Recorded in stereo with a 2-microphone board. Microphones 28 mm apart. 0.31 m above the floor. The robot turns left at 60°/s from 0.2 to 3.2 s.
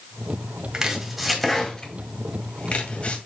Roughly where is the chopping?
Right.